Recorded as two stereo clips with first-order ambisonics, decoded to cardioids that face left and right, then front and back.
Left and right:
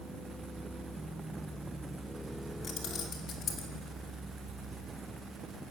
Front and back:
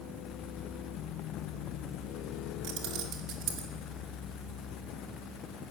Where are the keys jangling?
150° left, 2.5 m; by 3.7 s 145° left, 3 m.